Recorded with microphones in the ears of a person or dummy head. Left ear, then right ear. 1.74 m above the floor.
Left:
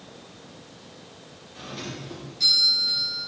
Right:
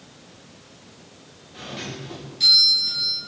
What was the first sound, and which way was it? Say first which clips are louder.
A doorbell: right 3 dB; 25° right (ahead or behind).